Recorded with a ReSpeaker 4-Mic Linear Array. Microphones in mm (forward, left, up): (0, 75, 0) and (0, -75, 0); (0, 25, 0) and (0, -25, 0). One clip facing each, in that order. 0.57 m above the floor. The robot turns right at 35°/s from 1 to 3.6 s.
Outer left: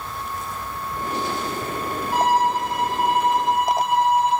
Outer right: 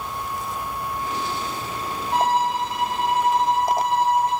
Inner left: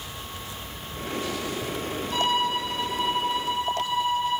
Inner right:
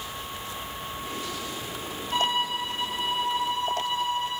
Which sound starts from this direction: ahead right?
A violin, at 2.1 s.